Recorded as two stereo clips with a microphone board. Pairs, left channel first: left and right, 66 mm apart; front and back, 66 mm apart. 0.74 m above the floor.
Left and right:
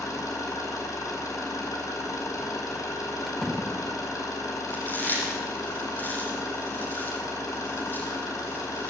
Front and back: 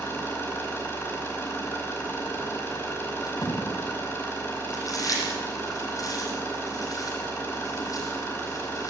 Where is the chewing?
30° left, 8 m.